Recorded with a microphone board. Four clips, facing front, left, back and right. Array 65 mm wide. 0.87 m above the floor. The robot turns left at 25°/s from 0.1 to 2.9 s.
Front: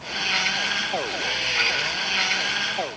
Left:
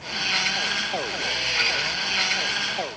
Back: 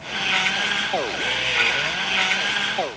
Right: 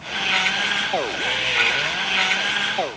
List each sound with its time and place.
Only background noise.